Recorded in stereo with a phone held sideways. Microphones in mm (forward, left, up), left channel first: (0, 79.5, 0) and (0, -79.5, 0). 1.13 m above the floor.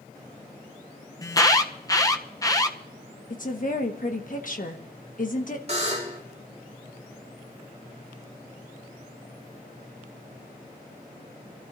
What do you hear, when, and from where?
1.2 s an alarm: 20° left (ahead or behind), 0.8 m
3.3 s a woman speaking: 55° left (ahead or behind), 1.4 m
5.7 s a buzzer: 40° right (ahead or behind), 3 m